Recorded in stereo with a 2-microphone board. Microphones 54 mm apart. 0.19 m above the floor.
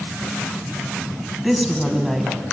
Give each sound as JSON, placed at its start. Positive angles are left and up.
{"t": 1.4, "sound": "a woman speaking", "side_deg": -5, "distance_m": 1.3}